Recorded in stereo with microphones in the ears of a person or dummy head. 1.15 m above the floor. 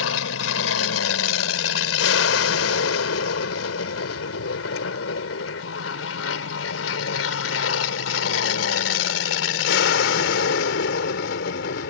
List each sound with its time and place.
0.0 s an aircraft: 75° left (ahead or behind); by 11.9 s 60° left (ahead or behind)